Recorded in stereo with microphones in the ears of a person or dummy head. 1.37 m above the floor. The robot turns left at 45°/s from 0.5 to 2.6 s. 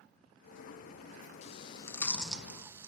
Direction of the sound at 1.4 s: 40° left (ahead or behind).